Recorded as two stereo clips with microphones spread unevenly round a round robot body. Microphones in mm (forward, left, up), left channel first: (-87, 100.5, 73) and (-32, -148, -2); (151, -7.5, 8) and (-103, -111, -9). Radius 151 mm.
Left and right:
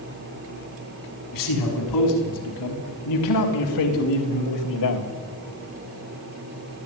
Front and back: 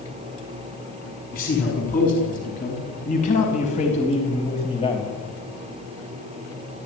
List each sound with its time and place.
1.3 s a man speaking: 85° left, 6.5 m; by 5.1 s 95° left, 3.5 m